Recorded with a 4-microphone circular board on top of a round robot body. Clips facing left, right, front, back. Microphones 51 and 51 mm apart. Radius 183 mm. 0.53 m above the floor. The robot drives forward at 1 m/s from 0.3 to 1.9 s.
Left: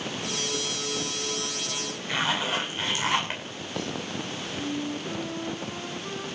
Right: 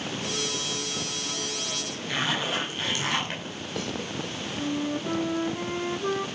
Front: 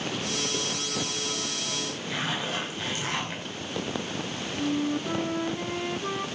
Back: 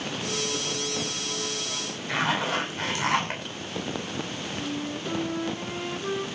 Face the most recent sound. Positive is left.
turn(degrees=-85)